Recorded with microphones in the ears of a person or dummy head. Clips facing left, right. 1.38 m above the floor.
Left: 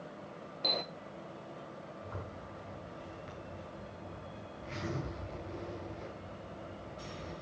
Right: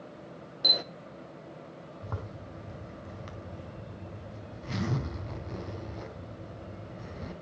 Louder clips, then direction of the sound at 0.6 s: Right 1 dB; 10° right (ahead or behind).